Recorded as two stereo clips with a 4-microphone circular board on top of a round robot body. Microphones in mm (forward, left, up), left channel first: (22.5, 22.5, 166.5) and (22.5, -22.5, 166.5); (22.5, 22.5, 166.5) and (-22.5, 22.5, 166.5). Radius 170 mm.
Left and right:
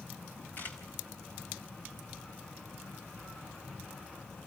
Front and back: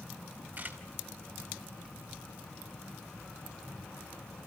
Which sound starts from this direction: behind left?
A camera shutter, at 0.6 s.